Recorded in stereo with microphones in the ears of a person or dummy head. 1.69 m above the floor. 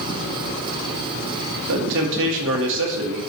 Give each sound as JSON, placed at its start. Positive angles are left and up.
{"t": 1.7, "sound": "a man speaking", "side_deg": -65, "distance_m": 1.6}